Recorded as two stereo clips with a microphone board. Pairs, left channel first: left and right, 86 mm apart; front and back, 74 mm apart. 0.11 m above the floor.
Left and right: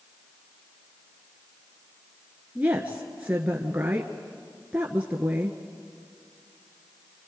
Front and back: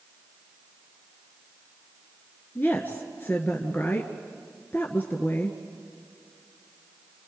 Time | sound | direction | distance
2.5 | a woman speaking | 35° right | 1.5 m